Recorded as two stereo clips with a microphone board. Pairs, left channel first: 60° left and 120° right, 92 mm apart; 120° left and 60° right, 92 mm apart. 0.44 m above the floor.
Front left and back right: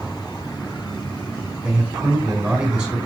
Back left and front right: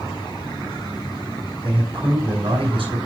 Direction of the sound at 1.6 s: 35° right.